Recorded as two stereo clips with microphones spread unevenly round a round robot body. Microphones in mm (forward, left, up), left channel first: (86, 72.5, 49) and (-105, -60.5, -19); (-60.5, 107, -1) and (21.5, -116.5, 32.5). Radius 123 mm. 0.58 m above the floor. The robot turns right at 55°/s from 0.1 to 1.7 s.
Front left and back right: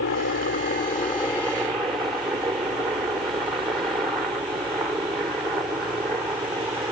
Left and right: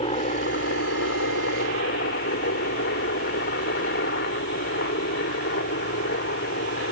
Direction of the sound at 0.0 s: 50° left.